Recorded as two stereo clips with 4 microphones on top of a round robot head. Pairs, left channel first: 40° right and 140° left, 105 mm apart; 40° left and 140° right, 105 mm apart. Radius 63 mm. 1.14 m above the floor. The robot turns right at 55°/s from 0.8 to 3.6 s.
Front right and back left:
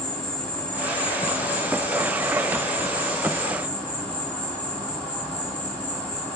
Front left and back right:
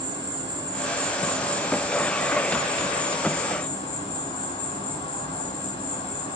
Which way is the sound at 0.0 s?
115° right.